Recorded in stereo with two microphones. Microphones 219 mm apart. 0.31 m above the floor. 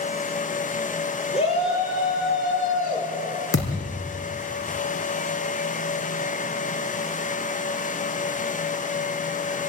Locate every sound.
1.3 s a shout: 25° left (ahead or behind), 9 m; by 3.1 s 35° left (ahead or behind), 11 m
3.5 s a thud: 85° left, 4 m